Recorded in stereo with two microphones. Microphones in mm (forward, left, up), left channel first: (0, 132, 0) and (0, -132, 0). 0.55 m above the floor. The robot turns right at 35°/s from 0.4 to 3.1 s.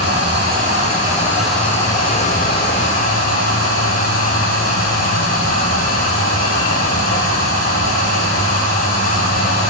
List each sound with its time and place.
0.0 s running water: 40° right, 8 m; by 9.7 s 55° left, 8 m